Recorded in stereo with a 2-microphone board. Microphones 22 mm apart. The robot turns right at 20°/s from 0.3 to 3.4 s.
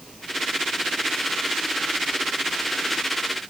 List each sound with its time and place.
Only background noise.